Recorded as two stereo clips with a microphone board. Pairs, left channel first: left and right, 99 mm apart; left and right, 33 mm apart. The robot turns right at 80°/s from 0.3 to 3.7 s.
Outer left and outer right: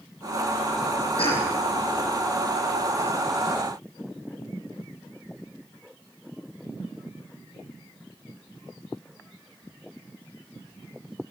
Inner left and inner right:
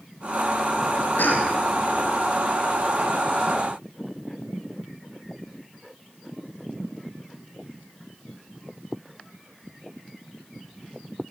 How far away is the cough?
About 6.5 m.